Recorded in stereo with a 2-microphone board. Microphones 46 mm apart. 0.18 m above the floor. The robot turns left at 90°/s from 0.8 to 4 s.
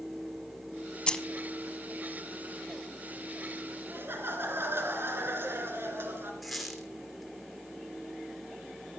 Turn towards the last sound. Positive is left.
turn(degrees=-5)  # may be behind; listen again after turning